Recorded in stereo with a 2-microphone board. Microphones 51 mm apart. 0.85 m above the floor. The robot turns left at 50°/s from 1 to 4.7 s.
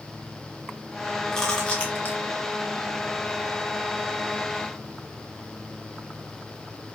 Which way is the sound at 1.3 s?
10° left (ahead or behind).